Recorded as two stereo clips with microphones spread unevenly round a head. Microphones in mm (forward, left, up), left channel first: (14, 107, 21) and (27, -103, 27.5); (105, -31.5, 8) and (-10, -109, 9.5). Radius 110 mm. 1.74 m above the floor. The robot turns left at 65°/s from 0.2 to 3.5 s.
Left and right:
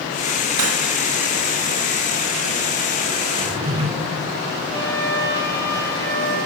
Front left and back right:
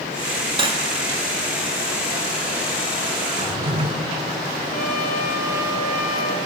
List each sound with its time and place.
0.6 s cutlery clinking: 95° right, 2.0 m; by 0.8 s 115° right, 2.0 m
3.4 s a drawer: 125° right, 1.6 m; by 3.9 s 135° right, 1.6 m
4.7 s a trumpet: 20° left, 3 m